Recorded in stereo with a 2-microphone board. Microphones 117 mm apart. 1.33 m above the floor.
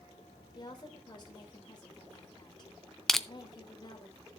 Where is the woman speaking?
40° left (ahead or behind), 2.5 m.